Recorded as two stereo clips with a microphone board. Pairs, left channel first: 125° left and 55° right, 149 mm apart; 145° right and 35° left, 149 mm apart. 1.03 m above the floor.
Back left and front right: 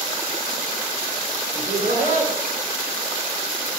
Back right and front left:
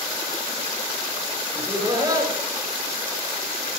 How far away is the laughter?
About 10 m.